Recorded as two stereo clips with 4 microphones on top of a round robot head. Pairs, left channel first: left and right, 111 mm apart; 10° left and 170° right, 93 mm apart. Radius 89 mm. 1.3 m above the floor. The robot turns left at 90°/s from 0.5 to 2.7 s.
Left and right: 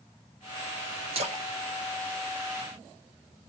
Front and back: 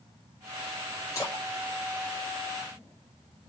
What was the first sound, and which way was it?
A splash, 55° right.